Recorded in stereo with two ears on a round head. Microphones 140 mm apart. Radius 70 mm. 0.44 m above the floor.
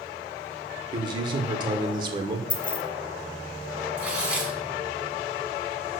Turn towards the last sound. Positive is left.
turn(degrees=-10)  # may be behind; listen again after turning